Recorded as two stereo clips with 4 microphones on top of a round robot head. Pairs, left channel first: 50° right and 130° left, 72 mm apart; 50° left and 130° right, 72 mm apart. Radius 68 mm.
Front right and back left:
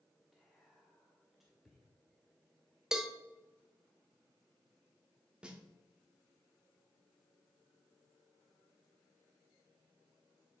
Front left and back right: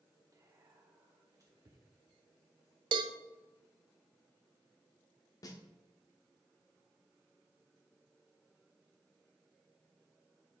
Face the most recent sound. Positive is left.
turn(degrees=55)